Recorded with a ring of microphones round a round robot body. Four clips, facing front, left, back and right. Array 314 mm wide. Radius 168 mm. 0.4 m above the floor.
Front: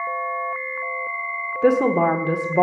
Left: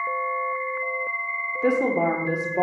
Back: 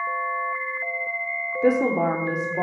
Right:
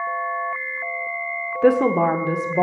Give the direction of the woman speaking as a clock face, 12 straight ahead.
2 o'clock.